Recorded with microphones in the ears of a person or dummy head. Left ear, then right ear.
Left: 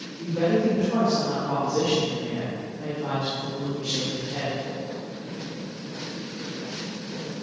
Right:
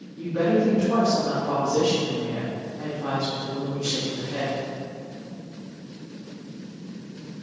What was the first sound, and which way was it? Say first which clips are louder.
A woman speaking: right 1 dB; 80° right.